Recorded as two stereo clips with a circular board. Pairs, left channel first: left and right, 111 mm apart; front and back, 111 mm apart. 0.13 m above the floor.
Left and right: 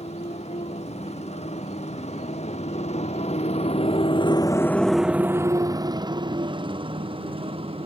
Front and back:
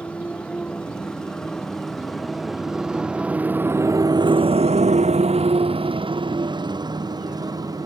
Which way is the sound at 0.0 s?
80° left.